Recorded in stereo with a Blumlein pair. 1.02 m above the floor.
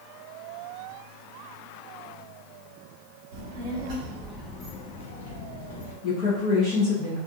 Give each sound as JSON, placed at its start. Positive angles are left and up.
{"t": 3.3, "sound": "a child speaking", "azimuth_deg": -55, "distance_m": 0.9}
{"t": 6.0, "sound": "a woman speaking", "azimuth_deg": 30, "distance_m": 0.8}